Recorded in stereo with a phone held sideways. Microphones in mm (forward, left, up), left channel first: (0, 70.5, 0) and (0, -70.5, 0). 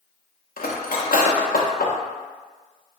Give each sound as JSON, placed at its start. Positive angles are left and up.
{"t": 0.6, "sound": "cutlery clinking", "side_deg": 85, "distance_m": 0.6}